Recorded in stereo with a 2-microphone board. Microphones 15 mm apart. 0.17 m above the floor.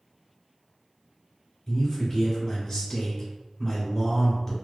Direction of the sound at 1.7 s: 15° left (ahead or behind).